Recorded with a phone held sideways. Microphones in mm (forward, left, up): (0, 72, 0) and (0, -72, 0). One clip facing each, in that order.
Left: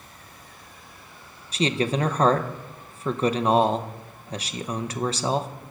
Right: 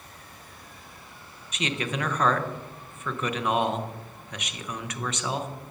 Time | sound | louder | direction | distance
1.5 | a man speaking | left 7 dB | 35° left (ahead or behind) | 0.5 m